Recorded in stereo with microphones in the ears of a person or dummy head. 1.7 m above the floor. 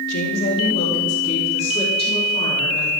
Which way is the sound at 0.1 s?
60° left (ahead or behind).